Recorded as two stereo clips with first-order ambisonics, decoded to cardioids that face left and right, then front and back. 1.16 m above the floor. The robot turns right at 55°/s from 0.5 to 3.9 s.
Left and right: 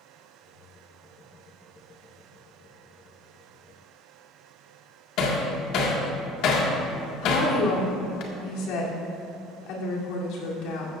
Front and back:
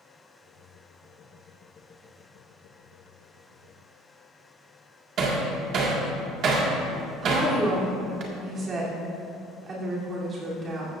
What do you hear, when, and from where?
5.2 s hammering: 130° left, 1.7 m
7.2 s a woman speaking: 115° left, 3 m